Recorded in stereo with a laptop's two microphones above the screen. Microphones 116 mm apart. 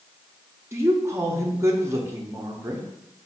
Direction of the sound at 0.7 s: 20° right (ahead or behind).